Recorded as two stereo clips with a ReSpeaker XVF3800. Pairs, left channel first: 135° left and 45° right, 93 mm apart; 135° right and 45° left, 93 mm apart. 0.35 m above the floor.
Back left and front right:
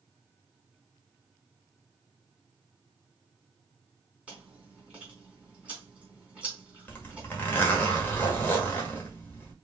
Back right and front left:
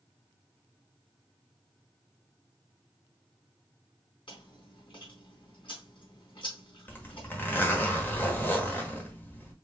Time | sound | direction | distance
4.3 | chewing | 120° right | 3 m
6.9 | a zipper | straight behind | 1.5 m